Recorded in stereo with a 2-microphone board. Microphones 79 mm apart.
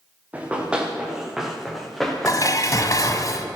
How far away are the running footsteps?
About 4 m.